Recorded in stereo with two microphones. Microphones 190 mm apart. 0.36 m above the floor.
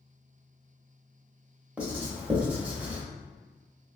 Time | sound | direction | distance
1.8 | writing | 10° right (ahead or behind) | 0.9 m